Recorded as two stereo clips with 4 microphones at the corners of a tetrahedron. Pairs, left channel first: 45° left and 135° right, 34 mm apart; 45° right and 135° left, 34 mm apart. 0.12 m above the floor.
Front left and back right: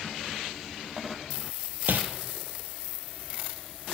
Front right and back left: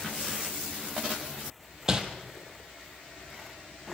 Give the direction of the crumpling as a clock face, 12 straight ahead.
5 o'clock.